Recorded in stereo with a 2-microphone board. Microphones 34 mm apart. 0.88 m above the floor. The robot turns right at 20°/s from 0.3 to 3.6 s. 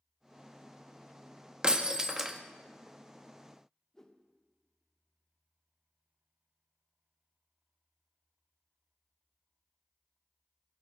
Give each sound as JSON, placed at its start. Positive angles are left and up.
{"t": 1.6, "sound": "breaking glass", "side_deg": -25, "distance_m": 0.7}
{"t": 3.9, "sound": "a whoosh", "side_deg": 15, "distance_m": 0.8}